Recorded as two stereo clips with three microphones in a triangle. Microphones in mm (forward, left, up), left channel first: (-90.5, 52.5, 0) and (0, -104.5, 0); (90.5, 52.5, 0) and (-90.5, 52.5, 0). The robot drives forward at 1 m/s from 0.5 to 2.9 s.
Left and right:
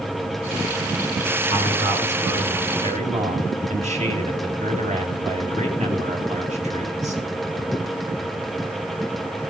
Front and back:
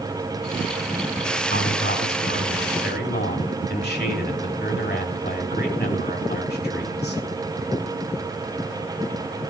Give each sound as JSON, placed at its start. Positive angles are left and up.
{"t": 1.5, "sound": "a man speaking", "azimuth_deg": -10, "distance_m": 5.0}